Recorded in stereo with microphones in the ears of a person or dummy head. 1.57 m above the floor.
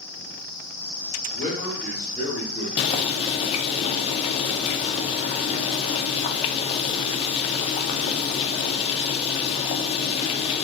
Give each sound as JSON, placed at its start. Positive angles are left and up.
{"t": 1.3, "sound": "a man speaking", "side_deg": 15, "distance_m": 1.4}
{"t": 2.8, "sound": "boiling", "side_deg": 35, "distance_m": 0.5}